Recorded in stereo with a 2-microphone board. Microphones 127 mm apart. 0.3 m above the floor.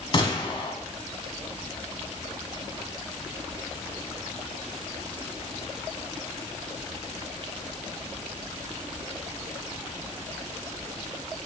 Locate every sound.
0.1 s a gunshot: 40° left (ahead or behind), 1.3 m